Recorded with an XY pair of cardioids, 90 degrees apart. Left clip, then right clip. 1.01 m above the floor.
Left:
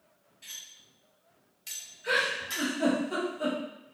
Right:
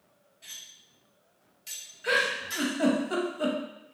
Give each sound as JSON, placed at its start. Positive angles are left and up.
{"t": 0.4, "sound": "cutlery clinking", "azimuth_deg": 30, "distance_m": 1.1}
{"t": 2.0, "sound": "a giggle", "azimuth_deg": -60, "distance_m": 0.8}